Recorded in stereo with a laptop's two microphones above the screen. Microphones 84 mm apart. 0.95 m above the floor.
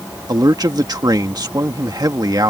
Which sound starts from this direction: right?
A man speaking, at 0.3 s.